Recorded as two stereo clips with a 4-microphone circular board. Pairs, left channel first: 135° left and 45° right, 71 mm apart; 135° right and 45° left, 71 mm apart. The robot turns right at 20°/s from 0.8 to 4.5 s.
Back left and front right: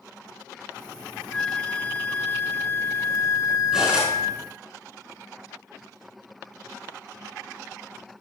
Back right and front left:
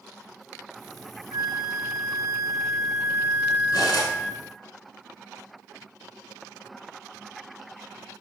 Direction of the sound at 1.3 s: 60° left.